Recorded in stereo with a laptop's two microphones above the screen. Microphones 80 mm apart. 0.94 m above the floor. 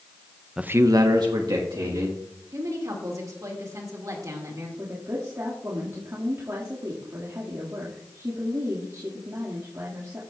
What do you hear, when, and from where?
0.6 s a man speaking: 10° right (ahead or behind), 0.5 m; by 2.2 s 65° right (ahead or behind), 2.5 m
2.5 s a woman speaking: 50° right (ahead or behind), 2 m
4.8 s a woman speaking: 45° right (ahead or behind), 1.9 m